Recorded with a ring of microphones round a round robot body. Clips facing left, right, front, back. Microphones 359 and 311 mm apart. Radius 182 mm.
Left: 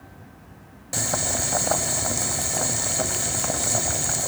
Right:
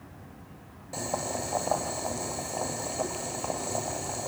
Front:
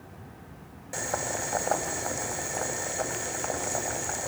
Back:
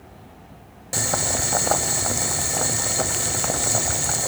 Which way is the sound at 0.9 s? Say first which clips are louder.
Left 3 dB, back 5 dB; 140° left.